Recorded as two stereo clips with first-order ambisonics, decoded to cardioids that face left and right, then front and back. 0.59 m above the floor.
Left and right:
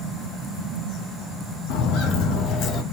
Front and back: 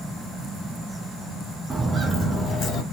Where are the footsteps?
100° left, 1.0 m; by 2.8 s 35° left, 0.9 m.